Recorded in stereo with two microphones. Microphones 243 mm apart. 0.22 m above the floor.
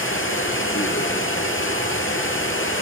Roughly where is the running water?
Left.